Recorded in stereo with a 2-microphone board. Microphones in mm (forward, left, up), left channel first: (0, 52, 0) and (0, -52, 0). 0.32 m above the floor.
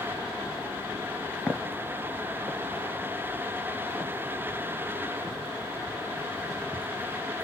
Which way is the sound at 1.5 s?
10° left (ahead or behind).